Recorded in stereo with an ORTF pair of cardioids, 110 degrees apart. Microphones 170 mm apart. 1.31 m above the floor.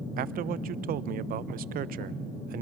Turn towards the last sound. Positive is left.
turn(degrees=-60)